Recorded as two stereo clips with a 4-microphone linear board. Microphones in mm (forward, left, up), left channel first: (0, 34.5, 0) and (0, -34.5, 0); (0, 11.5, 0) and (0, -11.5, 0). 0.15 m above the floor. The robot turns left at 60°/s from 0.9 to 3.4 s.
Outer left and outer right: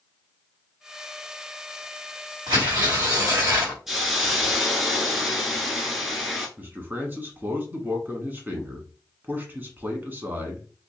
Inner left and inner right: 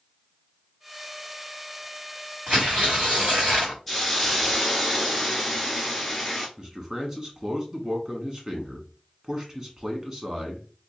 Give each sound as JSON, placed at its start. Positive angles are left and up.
{"t": 2.5, "sound": "tearing paper", "azimuth_deg": -85, "distance_m": 2.5}
{"t": 3.9, "sound": "a hiss", "side_deg": -5, "distance_m": 1.2}
{"t": 6.6, "sound": "a man speaking", "side_deg": -25, "distance_m": 1.1}